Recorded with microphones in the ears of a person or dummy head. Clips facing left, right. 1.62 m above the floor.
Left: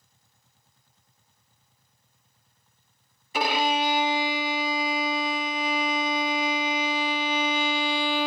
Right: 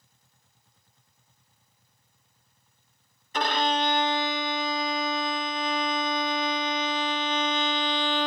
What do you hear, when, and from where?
3.3 s a violin: 10° left (ahead or behind), 0.5 m